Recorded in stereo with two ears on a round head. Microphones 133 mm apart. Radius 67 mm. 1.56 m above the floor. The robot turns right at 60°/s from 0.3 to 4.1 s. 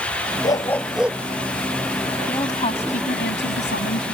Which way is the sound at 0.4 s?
150° left.